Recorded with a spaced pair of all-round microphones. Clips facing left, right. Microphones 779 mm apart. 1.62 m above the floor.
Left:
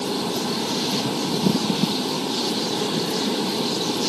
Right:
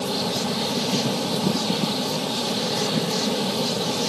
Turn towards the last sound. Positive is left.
turn(degrees=-20)  # may be behind; listen again after turning